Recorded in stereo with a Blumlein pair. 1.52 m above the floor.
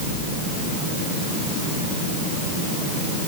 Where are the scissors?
No scissors in this recording.